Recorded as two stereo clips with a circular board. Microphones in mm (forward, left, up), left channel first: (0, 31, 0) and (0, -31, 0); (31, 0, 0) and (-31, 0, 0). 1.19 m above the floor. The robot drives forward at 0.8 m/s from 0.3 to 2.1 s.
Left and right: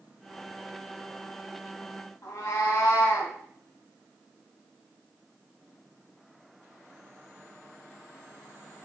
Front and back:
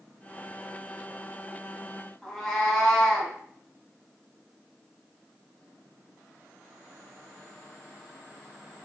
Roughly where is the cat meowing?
Left.